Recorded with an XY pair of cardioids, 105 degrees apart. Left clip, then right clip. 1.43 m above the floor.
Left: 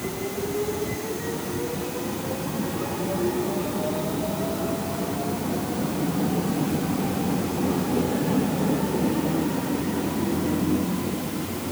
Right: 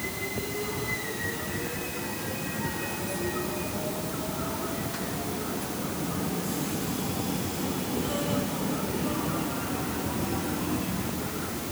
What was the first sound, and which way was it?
Only background noise.